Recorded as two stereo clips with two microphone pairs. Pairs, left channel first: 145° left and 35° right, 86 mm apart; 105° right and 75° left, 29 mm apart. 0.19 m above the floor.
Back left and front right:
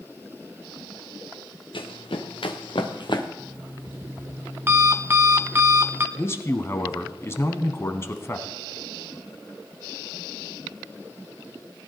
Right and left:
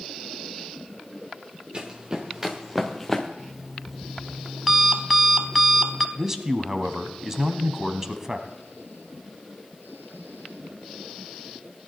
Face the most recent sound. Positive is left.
turn(degrees=130)